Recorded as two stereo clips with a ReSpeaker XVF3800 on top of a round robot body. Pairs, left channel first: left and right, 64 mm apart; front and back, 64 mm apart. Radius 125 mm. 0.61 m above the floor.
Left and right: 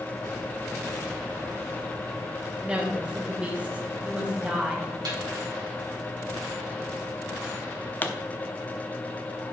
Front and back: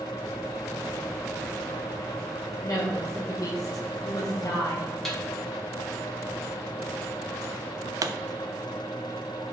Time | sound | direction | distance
2.6 | a woman speaking | 20° right | 1.4 m
5.0 | a snare drum | 90° right | 2 m
8.0 | a pop | 150° left | 0.5 m